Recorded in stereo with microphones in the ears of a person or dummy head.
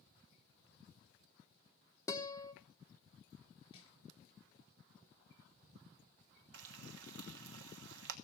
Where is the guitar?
20° left (ahead or behind), 1.0 m.